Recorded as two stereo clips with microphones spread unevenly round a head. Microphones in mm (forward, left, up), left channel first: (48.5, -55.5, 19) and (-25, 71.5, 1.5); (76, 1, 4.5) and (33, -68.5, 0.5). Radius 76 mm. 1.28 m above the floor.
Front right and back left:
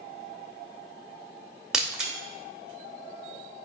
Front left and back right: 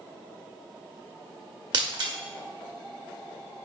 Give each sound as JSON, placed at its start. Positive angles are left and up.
{"t": 1.7, "sound": "breaking glass", "azimuth_deg": -150, "distance_m": 1.2}